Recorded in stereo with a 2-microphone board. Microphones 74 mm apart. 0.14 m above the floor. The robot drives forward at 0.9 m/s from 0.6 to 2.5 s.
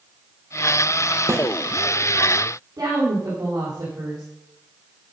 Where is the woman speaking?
55° right (ahead or behind), 4 m.